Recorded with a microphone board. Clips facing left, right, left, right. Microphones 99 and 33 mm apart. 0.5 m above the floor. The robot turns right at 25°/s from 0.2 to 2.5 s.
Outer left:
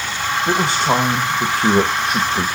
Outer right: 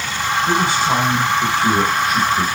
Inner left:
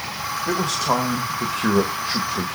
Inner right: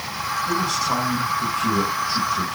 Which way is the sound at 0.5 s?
75° left.